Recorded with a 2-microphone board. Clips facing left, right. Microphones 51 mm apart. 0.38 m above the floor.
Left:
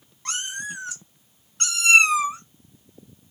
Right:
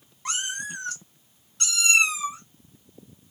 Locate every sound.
0.2 s a cat meowing: 10° right (ahead or behind), 0.8 m; by 2.4 s 55° left (ahead or behind), 0.7 m